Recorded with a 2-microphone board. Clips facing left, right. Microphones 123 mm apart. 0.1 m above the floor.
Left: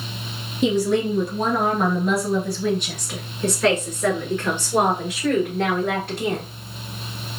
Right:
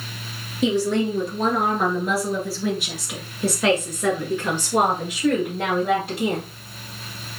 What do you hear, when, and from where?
0.6 s a woman speaking: centre (ahead or behind), 2.5 m; by 6.5 s 10° right (ahead or behind), 2.5 m